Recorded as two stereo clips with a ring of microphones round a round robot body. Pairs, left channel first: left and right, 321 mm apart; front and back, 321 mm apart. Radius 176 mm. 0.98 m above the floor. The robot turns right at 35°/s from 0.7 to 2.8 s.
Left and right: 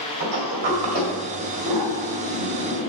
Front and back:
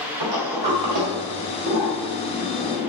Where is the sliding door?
150° right, 2.0 m; by 2.9 s 80° right, 2.0 m.